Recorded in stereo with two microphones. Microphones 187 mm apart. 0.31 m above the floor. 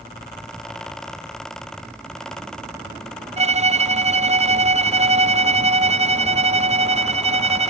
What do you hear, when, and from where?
3.4 s a violin: 35° right (ahead or behind), 0.5 m